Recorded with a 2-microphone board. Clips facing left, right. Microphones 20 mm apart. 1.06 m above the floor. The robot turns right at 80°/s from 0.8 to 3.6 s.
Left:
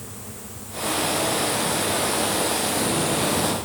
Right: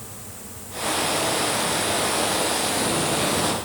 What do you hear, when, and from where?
Only background noise.